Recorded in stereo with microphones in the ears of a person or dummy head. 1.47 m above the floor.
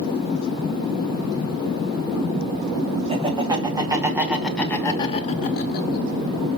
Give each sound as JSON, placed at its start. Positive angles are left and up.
{"t": 3.1, "sound": "laughter", "side_deg": -25, "distance_m": 3.0}